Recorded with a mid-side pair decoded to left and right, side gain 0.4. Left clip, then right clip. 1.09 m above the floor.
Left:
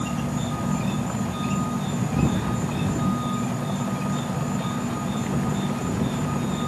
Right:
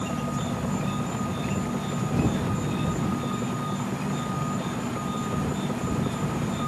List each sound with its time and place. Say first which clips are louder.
0.0 s an insect: left 1 dB; 25° left